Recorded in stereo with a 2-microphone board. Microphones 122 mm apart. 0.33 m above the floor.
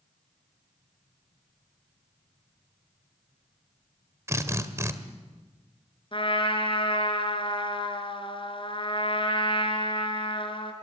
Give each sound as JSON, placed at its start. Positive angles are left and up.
{"t": 4.3, "sound": "a drill", "side_deg": -25, "distance_m": 1.4}
{"t": 6.1, "sound": "a trumpet", "side_deg": 45, "distance_m": 2.5}